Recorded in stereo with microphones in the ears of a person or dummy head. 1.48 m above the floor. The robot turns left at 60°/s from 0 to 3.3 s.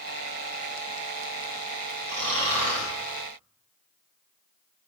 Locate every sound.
2.1 s snoring: 55° right, 2.5 m; by 2.9 s 105° right, 2.5 m